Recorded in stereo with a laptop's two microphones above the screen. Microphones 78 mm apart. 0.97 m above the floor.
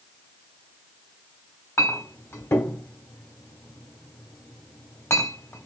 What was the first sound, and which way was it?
A clink, 35° left (ahead or behind).